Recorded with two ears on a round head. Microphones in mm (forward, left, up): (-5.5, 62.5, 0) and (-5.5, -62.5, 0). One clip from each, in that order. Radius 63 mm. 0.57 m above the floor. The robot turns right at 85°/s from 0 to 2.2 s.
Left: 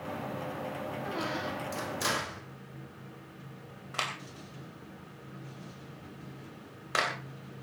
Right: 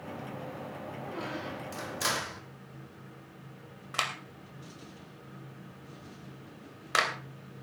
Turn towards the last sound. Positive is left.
turn(degrees=-30)  # may be behind; listen again after turning